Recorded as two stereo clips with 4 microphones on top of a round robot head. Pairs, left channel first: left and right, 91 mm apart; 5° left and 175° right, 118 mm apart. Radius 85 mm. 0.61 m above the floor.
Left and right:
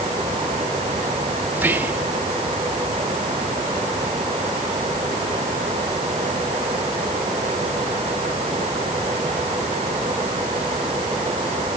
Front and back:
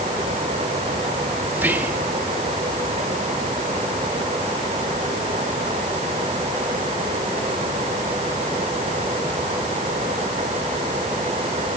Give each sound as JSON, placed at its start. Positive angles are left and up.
{"t": 1.5, "sound": "whispering", "azimuth_deg": -125, "distance_m": 0.7}